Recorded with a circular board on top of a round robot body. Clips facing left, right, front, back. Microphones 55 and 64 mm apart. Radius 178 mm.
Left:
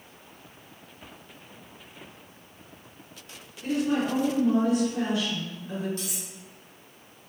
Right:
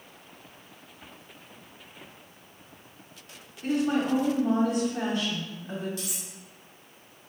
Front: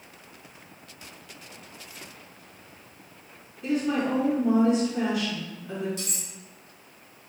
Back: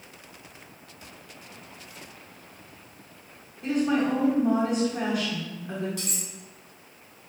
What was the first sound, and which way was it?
A woman speaking, 125° right.